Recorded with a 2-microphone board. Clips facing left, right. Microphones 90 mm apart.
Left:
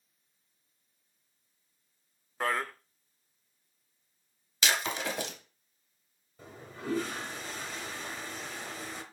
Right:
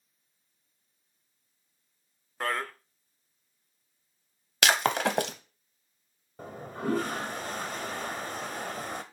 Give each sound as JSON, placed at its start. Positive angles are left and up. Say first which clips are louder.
{"t": 2.4, "sound": "a man speaking", "louder": "even", "side_deg": 5, "distance_m": 0.7}
{"t": 4.6, "sound": "breaking glass", "louder": "right 7 dB", "side_deg": -75, "distance_m": 0.8}
{"t": 6.4, "sound": "a toilet flushing", "louder": "right 7 dB", "side_deg": -55, "distance_m": 0.9}